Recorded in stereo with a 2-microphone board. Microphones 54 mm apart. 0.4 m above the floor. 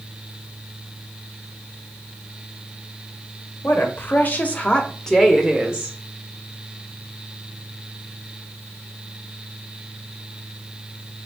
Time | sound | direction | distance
3.6 | a woman speaking | 50° left (ahead or behind) | 1.1 m